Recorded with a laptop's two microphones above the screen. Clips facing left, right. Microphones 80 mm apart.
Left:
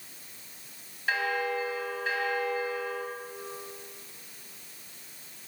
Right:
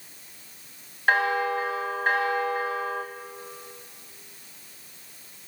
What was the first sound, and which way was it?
A bell, 50° right (ahead or behind).